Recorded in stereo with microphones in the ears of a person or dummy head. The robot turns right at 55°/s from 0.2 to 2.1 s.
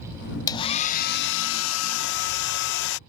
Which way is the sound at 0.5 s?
20° left.